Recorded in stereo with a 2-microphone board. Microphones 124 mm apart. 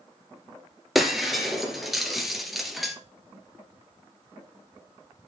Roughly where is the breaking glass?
Centre.